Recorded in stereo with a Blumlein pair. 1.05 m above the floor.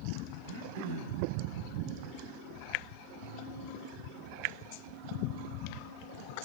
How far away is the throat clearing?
About 5 m.